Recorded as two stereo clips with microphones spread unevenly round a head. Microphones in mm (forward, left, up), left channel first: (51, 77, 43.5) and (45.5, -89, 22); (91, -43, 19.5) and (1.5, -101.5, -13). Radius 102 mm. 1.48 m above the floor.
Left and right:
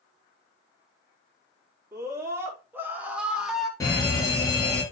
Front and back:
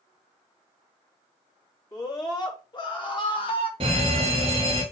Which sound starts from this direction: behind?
A fire alarm, at 3.8 s.